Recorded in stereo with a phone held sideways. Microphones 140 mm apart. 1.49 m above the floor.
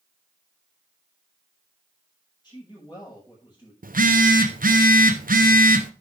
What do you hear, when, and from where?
2.4 s a man speaking: 30° left (ahead or behind), 6 m
3.8 s a phone buzzing: 85° right, 0.8 m